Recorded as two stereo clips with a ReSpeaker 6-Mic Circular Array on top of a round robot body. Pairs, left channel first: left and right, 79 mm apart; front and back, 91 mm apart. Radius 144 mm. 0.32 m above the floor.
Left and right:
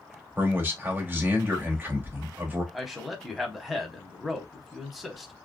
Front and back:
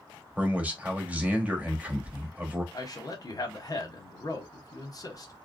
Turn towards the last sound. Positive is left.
turn(degrees=0)